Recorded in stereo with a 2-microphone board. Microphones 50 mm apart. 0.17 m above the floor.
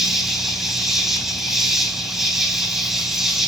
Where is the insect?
10° right (ahead or behind), 1.7 m.